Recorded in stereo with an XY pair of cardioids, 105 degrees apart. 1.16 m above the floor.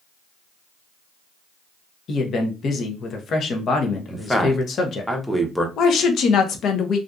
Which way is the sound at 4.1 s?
5° left.